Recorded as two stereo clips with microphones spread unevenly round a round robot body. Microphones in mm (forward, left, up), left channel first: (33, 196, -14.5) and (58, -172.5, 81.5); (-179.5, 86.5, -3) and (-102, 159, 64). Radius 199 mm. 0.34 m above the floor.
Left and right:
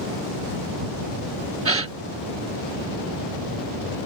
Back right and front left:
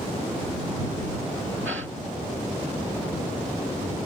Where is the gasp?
10° right.